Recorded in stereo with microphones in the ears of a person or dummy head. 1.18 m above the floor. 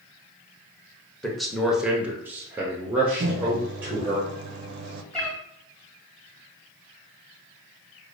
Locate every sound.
1.2 s a man speaking: centre (ahead or behind), 0.8 m; by 4.2 s 10° right (ahead or behind), 1.3 m
3.2 s a microwave: 55° right (ahead or behind), 0.5 m
5.1 s a cat meowing: centre (ahead or behind), 1.4 m